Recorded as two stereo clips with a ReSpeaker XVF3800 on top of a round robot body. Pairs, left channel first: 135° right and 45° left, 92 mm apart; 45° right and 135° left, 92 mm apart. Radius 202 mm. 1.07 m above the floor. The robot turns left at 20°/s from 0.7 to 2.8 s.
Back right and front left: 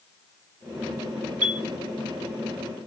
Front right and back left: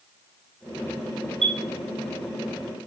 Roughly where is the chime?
Behind left.